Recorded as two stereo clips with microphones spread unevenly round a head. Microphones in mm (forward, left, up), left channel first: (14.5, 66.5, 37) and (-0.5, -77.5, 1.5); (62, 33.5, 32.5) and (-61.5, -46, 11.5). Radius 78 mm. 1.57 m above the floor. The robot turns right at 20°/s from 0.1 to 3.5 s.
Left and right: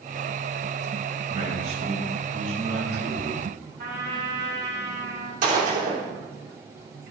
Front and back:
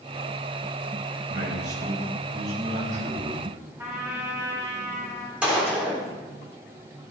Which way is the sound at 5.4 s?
65° right.